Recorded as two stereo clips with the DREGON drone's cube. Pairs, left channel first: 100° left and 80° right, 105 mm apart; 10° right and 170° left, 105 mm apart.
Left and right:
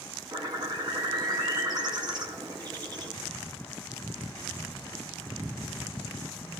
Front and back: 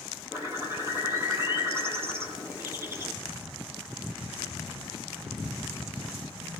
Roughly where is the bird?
Behind right.